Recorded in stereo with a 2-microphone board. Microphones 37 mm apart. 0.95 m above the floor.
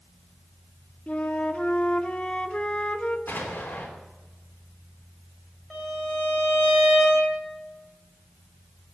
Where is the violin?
Centre (ahead or behind), 6.5 m.